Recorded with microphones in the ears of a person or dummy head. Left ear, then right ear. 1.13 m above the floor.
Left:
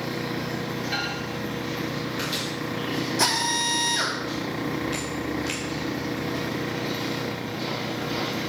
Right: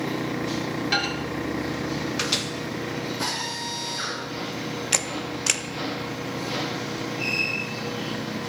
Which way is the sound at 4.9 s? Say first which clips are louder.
Right 2 dB; 70° right (ahead or behind).